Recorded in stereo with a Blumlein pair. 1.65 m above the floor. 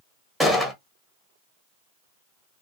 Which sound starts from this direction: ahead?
A gunshot, at 0.4 s.